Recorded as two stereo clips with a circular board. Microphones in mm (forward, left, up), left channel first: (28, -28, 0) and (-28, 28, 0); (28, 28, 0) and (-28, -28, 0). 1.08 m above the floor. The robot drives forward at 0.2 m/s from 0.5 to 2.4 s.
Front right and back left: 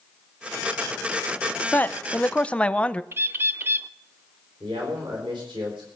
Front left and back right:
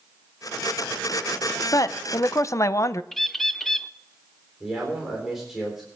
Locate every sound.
1.7 s a man speaking: 15° left, 0.6 m; by 3.0 s 20° left, 0.5 m
3.1 s a bird: 130° left, 0.5 m
4.6 s a man speaking: 140° left, 4 m